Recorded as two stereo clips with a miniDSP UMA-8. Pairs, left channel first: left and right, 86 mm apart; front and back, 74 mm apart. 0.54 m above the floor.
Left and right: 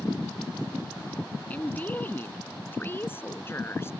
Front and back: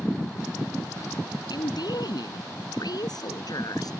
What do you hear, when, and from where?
1.5 s a woman speaking: 20° left; by 3.9 s 30° left